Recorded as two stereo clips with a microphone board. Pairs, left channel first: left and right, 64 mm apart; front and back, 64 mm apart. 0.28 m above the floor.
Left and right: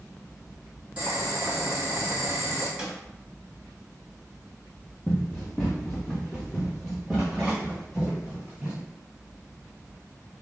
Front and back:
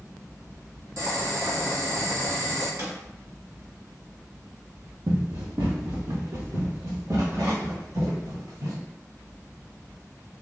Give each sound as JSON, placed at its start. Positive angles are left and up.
{"t": 1.0, "sound": "boiling", "azimuth_deg": -160, "distance_m": 1.9}
{"t": 2.8, "sound": "a snare drum", "azimuth_deg": -165, "distance_m": 1.1}
{"t": 5.1, "sound": "running footsteps", "azimuth_deg": 165, "distance_m": 1.1}